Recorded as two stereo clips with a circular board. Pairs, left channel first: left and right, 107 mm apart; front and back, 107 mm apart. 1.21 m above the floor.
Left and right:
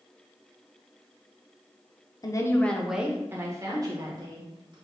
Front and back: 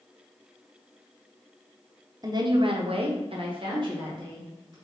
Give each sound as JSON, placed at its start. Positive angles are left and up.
{"t": 2.2, "sound": "a woman speaking", "azimuth_deg": 135, "distance_m": 0.6}